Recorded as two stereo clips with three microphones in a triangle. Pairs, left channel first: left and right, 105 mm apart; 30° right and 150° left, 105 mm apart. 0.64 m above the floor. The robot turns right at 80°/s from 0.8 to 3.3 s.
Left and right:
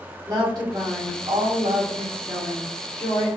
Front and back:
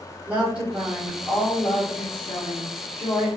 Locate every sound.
0.3 s a woman speaking: 135° right, 2 m; by 3.3 s 65° left, 2 m